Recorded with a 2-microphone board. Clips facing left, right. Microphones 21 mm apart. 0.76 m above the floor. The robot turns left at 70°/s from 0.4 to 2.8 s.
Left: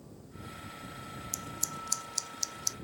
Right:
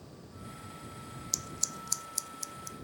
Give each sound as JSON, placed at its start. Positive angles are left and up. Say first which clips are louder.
{"t": 1.3, "sound": "scissors", "louder": "right 3 dB", "side_deg": -40}